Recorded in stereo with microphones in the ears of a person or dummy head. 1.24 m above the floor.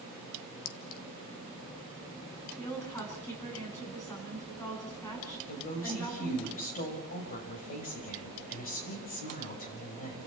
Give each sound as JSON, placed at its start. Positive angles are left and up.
{"t": 0.7, "sound": "a clink", "side_deg": 60, "distance_m": 0.8}
{"t": 2.6, "sound": "a woman speaking", "side_deg": 10, "distance_m": 9.5}
{"t": 5.5, "sound": "a woman speaking", "side_deg": 40, "distance_m": 6.0}